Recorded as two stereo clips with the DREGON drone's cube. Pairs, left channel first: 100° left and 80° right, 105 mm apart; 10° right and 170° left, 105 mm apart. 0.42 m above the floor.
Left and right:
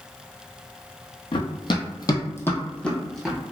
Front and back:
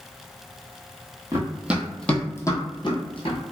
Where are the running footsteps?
120° left, 0.6 m; by 3.4 s 10° left, 1.0 m.